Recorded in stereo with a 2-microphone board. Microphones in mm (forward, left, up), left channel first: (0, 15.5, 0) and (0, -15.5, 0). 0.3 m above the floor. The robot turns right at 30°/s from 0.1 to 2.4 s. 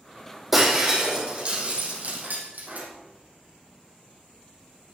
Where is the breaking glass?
5° right (ahead or behind), 4 m; by 2.9 s 60° right (ahead or behind), 4 m.